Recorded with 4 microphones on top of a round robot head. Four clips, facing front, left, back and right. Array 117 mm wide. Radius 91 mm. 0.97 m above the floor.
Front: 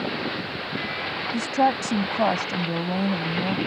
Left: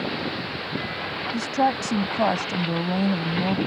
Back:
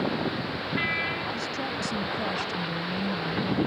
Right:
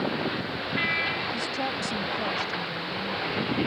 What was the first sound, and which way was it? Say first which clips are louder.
A woman speaking: left 8 dB, front 10 dB; 30° left.